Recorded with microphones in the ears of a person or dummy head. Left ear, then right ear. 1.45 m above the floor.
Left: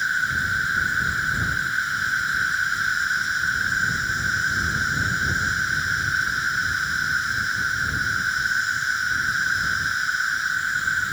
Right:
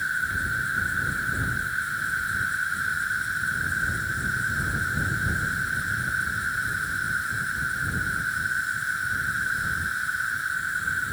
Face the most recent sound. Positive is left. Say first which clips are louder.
# left 4 dB
turn(degrees=20)  # may be behind; listen again after turning